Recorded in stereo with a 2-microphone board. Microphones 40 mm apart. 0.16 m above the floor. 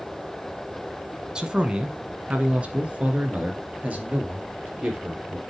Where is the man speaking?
20° right (ahead or behind), 1.2 m; by 5.4 s 40° right (ahead or behind), 3.5 m.